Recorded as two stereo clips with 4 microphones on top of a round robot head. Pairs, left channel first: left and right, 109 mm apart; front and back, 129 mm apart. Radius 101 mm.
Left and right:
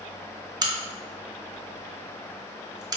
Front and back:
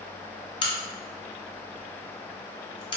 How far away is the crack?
About 0.6 m.